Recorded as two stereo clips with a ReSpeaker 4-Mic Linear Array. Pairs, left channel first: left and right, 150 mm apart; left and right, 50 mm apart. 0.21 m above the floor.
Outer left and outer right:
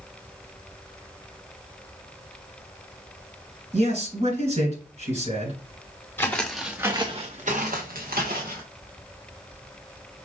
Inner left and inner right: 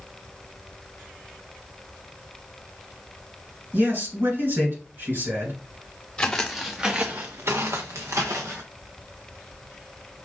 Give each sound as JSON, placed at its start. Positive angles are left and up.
{"t": 3.7, "sound": "a man speaking", "side_deg": -45, "distance_m": 2.5}
{"t": 6.2, "sound": "footsteps", "side_deg": 15, "distance_m": 1.3}